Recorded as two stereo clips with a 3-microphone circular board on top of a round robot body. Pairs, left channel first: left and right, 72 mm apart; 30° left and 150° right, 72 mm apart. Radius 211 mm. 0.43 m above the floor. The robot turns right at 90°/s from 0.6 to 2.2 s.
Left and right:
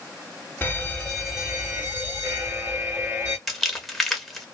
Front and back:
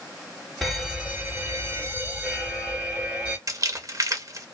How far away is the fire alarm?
About 2.5 m.